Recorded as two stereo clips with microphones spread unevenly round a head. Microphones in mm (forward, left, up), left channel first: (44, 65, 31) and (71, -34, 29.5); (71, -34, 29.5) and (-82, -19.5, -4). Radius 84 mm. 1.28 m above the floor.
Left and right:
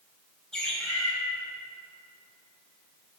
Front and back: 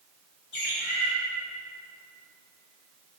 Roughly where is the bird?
Ahead left.